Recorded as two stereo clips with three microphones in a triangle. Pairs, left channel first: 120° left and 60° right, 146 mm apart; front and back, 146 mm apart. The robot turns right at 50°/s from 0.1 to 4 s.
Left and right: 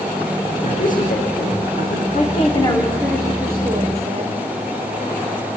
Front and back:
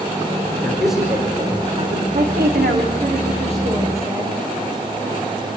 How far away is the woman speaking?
About 7 m.